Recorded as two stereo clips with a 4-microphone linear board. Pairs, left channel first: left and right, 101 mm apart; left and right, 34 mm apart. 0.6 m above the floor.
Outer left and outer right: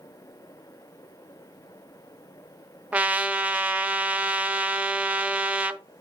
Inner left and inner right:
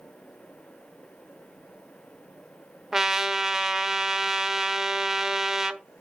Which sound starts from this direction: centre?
A trumpet, at 2.9 s.